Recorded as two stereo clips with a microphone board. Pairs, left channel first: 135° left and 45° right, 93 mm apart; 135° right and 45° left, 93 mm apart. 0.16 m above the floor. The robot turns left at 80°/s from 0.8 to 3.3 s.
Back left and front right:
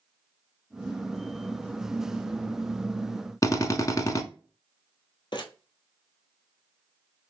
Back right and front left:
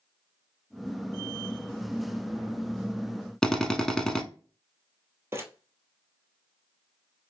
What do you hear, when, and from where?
3.4 s a drill: 145° left, 0.6 m
5.3 s crumpling: 105° left, 1.0 m